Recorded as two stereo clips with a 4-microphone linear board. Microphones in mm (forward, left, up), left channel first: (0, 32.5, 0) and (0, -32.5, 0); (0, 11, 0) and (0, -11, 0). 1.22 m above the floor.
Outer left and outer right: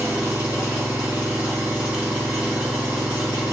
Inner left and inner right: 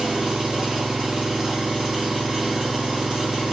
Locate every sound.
0.0 s an engine running: 30° right (ahead or behind), 2 m